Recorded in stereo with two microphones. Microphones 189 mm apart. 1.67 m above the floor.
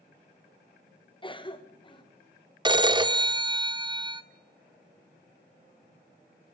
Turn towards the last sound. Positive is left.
turn(degrees=-25)  # may be behind; listen again after turning